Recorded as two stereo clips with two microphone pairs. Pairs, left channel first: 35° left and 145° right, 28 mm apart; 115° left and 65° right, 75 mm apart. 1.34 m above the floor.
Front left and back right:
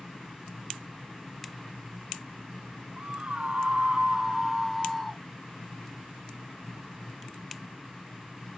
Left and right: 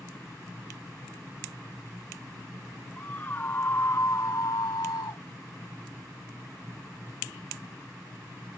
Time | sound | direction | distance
3.0 | a scream | straight behind | ?